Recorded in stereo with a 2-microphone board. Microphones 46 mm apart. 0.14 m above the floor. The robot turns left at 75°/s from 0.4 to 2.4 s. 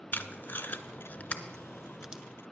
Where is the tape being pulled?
40° left (ahead or behind), 0.5 m; by 2.2 s 20° right (ahead or behind), 0.5 m.